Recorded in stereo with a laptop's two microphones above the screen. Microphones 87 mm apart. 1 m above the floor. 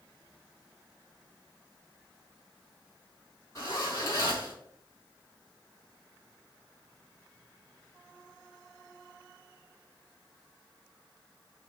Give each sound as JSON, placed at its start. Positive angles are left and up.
{"t": 3.5, "sound": "a zipper", "side_deg": 35, "distance_m": 3.0}